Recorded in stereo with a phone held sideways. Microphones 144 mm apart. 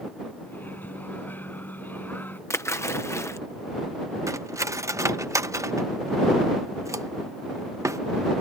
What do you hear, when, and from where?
0.5 s a microwave: 15° left (ahead or behind)
2.5 s a splash: 20° left (ahead or behind)
4.3 s cutlery clinking: 20° right (ahead or behind)